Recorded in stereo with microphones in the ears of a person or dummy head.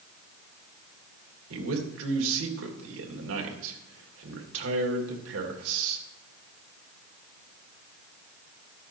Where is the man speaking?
75° right (ahead or behind), 2 m.